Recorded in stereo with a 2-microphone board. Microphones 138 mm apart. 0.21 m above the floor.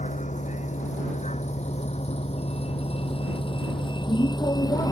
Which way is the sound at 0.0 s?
60° left (ahead or behind).